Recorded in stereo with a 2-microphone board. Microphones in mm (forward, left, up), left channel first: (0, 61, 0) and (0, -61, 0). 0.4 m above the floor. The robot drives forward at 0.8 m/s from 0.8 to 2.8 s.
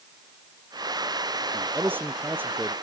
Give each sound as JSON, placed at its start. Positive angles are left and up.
{"t": 1.5, "sound": "a man speaking", "side_deg": -15}